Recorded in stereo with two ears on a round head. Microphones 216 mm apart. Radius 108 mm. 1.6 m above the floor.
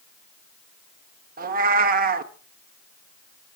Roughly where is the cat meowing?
Right.